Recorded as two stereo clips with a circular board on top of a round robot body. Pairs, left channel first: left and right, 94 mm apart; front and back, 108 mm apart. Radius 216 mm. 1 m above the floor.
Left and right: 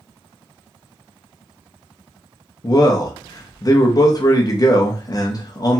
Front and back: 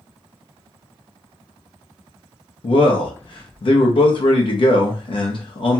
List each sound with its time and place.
2.6 s a man speaking: 40° left, 0.7 m